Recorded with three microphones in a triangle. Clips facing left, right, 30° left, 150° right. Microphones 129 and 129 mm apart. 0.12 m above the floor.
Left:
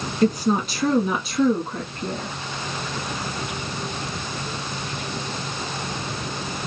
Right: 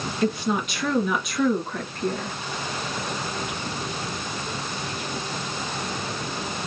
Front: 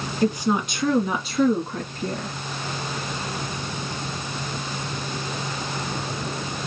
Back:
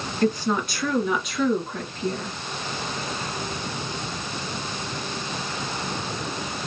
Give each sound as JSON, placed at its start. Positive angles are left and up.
{"t": 0.2, "sound": "a woman speaking", "azimuth_deg": 105, "distance_m": 1.4}